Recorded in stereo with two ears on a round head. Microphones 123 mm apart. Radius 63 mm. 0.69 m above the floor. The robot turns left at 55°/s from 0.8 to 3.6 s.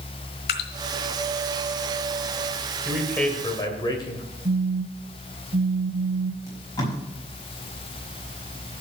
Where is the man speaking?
175° right, 2.5 m; by 4.2 s 145° left, 2.5 m.